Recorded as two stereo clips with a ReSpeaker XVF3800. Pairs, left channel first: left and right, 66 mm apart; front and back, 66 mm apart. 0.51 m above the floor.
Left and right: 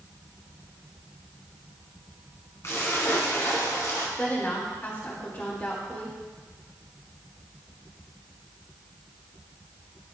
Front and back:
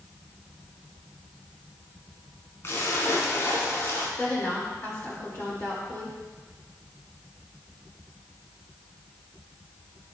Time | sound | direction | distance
2.6 | a splash | 45° left | 1.6 m
4.2 | a woman speaking | 45° left | 1.7 m